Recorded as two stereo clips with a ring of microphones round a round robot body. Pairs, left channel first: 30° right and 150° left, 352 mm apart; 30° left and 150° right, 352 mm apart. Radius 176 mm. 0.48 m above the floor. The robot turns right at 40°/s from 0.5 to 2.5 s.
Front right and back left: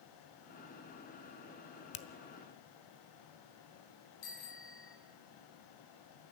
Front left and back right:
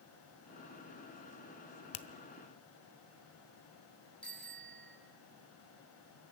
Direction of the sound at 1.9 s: 25° left.